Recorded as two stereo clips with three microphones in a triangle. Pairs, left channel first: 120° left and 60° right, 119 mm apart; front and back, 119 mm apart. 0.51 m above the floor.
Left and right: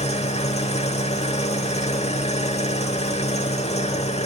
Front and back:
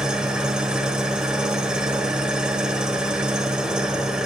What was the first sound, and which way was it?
An engine running, 95° left.